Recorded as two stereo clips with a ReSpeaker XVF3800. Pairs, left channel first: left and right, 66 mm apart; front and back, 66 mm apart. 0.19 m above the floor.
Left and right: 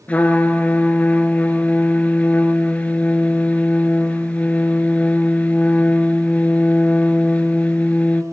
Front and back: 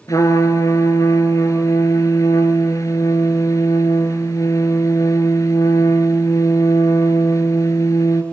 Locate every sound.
0.1 s a trumpet: 25° left, 1.3 m